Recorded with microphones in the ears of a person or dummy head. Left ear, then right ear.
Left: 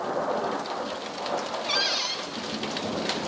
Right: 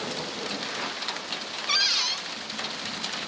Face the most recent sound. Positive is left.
turn(degrees=-20)  # may be behind; listen again after turning